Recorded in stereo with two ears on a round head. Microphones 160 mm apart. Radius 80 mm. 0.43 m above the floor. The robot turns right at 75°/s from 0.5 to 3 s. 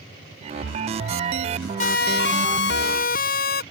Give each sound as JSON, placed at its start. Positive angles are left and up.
{"t": 1.8, "sound": "a siren", "side_deg": 45}